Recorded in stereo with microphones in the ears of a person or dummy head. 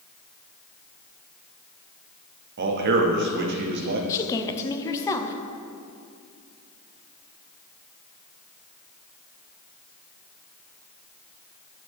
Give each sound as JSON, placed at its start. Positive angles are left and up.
{"t": 2.6, "sound": "a man speaking", "side_deg": -55, "distance_m": 0.8}
{"t": 4.1, "sound": "a woman speaking", "side_deg": 20, "distance_m": 0.5}